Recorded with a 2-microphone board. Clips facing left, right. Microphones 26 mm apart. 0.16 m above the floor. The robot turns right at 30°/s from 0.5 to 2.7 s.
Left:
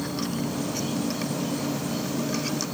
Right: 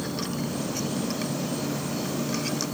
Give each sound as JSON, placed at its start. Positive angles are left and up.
{"t": 0.0, "sound": "an insect", "azimuth_deg": 80, "distance_m": 6.0}